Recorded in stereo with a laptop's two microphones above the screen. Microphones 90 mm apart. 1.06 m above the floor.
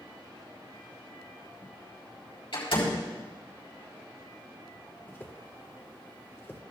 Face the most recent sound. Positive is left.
turn(degrees=25)  # may be behind; listen again after turning